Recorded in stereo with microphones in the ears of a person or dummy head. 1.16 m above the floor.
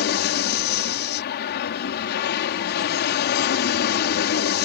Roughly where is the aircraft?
Left.